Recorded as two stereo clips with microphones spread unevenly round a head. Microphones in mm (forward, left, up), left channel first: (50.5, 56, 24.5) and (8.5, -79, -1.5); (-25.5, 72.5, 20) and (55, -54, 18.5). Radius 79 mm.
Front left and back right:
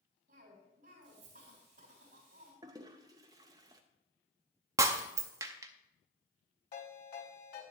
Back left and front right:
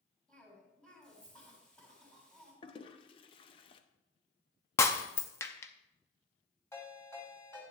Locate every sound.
0.3 s a cough: 155° right, 4 m
2.6 s a toilet flushing: straight behind, 0.6 m
4.8 s breaking glass: straight behind, 0.6 m
6.7 s a ringtone: 50° left, 4 m